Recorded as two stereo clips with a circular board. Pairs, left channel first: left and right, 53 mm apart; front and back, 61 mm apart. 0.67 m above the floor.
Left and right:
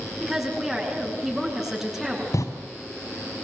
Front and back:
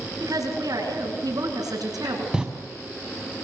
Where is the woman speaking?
175° right, 8 m.